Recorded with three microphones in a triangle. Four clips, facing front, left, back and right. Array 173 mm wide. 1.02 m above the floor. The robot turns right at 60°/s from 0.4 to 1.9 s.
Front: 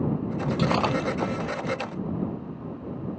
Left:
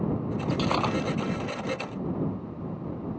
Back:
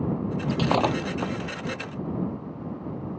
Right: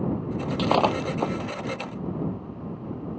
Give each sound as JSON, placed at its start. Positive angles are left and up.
{"t": 0.5, "sound": "breaking glass", "azimuth_deg": -130}